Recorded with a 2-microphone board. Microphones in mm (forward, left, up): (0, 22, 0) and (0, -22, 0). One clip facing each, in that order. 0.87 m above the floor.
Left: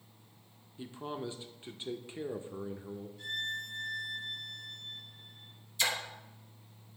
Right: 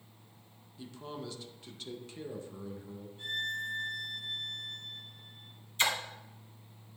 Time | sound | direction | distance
0.8 | a man speaking | 25° left (ahead or behind) | 0.5 m
3.2 | a violin | 25° right (ahead or behind) | 3.5 m
5.8 | a splash | 40° right (ahead or behind) | 1.0 m